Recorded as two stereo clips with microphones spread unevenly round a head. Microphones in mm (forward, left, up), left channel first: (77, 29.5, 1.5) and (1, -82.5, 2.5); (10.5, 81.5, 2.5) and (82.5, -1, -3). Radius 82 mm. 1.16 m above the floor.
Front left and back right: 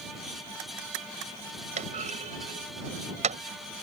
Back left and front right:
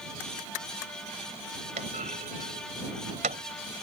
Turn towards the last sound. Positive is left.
turn(degrees=-95)